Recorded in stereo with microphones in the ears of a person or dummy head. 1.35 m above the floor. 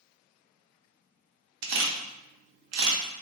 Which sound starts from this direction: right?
A camera shutter, at 1.6 s.